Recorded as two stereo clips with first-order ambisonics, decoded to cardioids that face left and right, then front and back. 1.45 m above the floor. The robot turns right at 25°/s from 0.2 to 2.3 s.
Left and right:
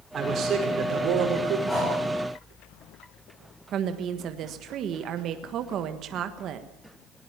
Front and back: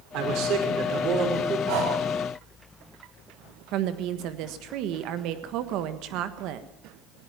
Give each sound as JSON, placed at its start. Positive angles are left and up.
{"t": 0.1, "sound": "a man speaking", "azimuth_deg": -155, "distance_m": 6.0}
{"t": 1.7, "sound": "breathing", "azimuth_deg": 170, "distance_m": 7.5}
{"t": 3.7, "sound": "a woman speaking", "azimuth_deg": -145, "distance_m": 1.4}